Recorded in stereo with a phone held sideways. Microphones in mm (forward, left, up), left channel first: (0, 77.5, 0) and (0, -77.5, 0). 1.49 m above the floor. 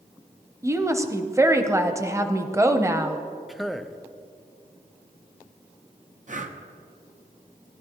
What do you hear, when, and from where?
0.6 s a woman speaking: 20° right (ahead or behind), 0.7 m
3.5 s a man speaking: centre (ahead or behind), 0.5 m
6.3 s breathing: 55° right (ahead or behind), 0.7 m